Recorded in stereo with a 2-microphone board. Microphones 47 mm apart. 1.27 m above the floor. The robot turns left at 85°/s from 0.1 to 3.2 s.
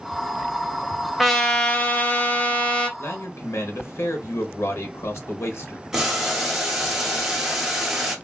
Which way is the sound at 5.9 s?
10° right (ahead or behind).